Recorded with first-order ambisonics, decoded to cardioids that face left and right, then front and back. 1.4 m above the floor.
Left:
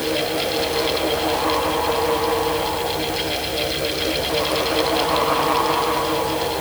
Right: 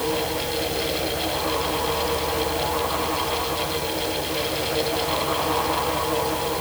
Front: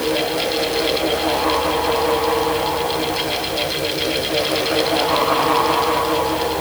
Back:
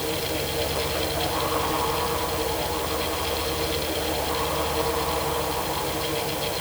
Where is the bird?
I don't hear a bird.